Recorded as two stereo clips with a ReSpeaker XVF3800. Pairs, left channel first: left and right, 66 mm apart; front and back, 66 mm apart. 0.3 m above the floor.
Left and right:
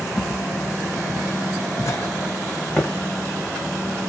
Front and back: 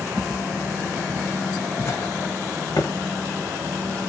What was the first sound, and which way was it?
Footsteps, 140° left.